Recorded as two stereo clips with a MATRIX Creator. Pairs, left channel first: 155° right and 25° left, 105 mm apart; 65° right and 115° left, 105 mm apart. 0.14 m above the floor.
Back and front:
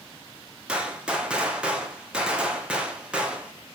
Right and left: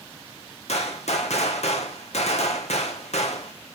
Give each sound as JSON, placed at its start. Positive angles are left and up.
{"t": 0.7, "sound": "a gunshot", "azimuth_deg": -60, "distance_m": 1.4}